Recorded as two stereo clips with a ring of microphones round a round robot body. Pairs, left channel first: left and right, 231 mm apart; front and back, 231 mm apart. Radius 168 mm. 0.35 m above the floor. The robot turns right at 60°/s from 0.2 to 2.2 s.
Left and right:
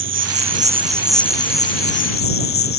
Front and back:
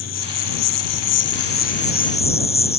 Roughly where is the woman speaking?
I don't hear a woman speaking.